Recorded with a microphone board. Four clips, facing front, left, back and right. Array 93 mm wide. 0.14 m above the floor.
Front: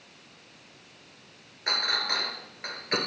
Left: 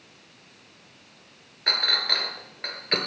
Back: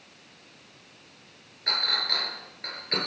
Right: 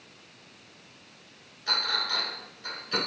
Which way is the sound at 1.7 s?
75° left.